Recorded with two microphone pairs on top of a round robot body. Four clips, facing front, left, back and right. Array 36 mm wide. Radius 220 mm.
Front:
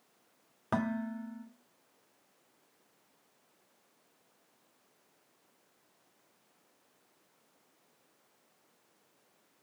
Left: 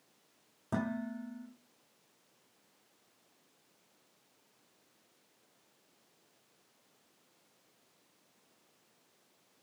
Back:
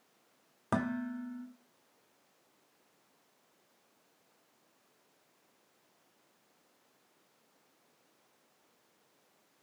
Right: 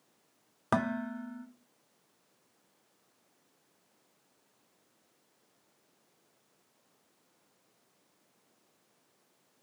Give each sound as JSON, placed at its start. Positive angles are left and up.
{"t": 0.7, "sound": "dishes clattering", "azimuth_deg": -95, "distance_m": 1.7}